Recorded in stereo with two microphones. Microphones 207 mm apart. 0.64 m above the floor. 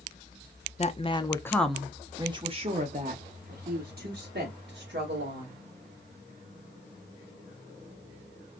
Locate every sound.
0.8 s a woman speaking: 35° left (ahead or behind), 0.7 m; by 5.5 s 60° right (ahead or behind), 2 m